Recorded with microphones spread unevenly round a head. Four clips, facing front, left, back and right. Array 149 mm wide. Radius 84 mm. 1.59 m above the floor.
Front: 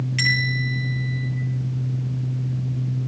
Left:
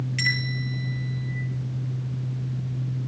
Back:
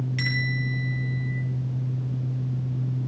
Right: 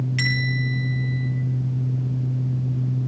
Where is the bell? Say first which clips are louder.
Right 4 dB, front 4 dB; 45° right, 9 m.